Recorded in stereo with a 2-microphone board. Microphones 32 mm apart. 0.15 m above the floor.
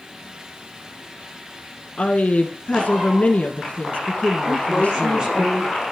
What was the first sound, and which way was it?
A woman speaking, 50° left (ahead or behind).